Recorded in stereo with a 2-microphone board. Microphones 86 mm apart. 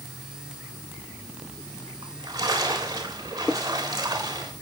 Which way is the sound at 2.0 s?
45° right (ahead or behind).